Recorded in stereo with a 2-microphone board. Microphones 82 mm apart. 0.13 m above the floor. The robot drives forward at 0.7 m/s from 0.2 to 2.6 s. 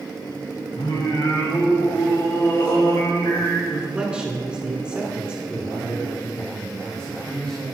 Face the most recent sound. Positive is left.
turn(degrees=15)  # may be behind; listen again after turning